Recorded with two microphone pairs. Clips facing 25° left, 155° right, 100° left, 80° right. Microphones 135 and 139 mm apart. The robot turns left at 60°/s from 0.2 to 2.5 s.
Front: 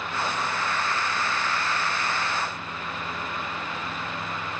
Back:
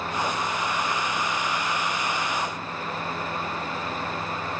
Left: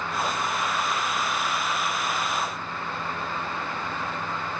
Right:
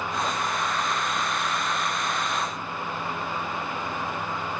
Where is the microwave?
No microwave in this recording.